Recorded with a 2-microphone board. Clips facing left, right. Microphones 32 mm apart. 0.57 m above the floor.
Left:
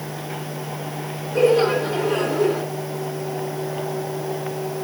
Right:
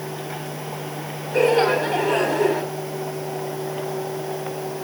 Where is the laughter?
75° right (ahead or behind), 4.5 m.